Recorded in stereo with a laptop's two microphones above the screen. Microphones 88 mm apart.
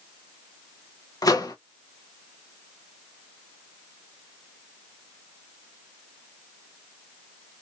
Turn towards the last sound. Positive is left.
turn(degrees=45)  # may be behind; listen again after turning